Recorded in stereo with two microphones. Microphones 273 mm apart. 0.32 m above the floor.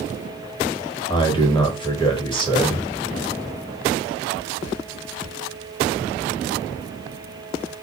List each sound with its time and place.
1.1 s a man speaking: 20° left (ahead or behind), 1.1 m